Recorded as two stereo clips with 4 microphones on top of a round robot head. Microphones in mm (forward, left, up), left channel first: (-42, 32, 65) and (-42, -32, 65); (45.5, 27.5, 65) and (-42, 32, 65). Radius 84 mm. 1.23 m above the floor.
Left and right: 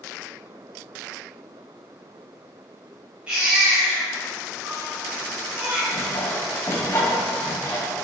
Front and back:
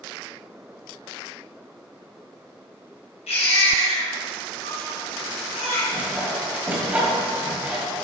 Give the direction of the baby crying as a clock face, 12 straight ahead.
12 o'clock.